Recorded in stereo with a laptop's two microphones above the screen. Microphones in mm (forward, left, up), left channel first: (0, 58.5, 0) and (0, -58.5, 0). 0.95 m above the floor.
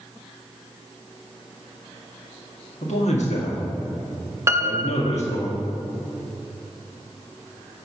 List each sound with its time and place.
2.8 s a man speaking: 70° left (ahead or behind), 1.8 m
4.5 s a piano: 25° right (ahead or behind), 0.6 m